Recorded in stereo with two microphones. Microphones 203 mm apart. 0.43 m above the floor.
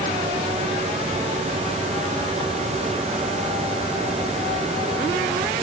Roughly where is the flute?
I don't hear a flute.